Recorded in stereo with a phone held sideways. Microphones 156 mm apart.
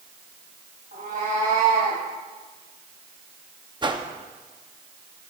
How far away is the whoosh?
About 0.8 m.